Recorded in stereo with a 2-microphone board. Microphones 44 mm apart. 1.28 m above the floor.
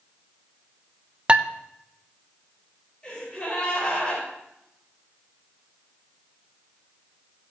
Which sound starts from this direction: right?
Dishes clattering, at 1.3 s.